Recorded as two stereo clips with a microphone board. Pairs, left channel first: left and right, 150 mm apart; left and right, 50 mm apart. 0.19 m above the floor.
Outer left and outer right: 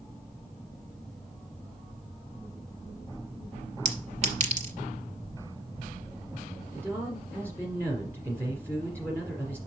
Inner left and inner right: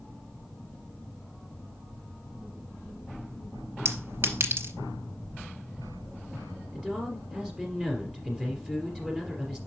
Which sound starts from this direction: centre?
A man speaking, at 6.7 s.